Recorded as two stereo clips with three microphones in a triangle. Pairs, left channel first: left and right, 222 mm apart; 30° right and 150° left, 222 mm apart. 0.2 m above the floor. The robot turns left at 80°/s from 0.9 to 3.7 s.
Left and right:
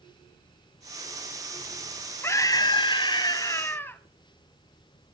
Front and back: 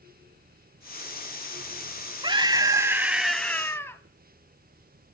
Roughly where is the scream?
Behind left.